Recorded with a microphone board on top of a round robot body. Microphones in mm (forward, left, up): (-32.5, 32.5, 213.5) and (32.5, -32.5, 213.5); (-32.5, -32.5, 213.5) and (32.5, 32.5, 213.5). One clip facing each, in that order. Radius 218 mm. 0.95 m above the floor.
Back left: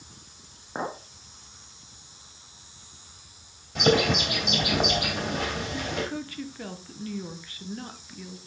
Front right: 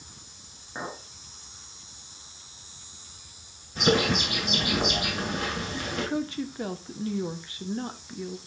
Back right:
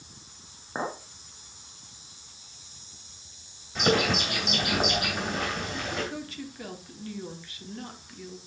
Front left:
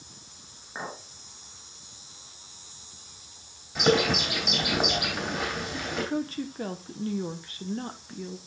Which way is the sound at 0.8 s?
175° left.